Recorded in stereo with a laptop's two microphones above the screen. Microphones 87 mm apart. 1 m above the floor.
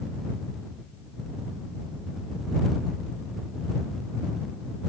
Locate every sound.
Only background noise.